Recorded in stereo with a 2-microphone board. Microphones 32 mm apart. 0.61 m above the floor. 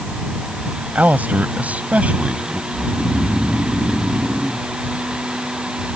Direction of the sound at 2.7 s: 15° right (ahead or behind).